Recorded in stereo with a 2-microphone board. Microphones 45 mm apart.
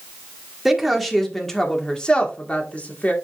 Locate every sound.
0.7 s a woman speaking: 5° right (ahead or behind), 1.8 m; by 3.1 s 40° left (ahead or behind), 1.9 m